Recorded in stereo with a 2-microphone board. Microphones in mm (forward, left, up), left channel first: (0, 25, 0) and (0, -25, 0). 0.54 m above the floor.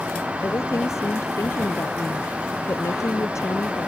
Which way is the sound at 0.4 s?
70° left (ahead or behind).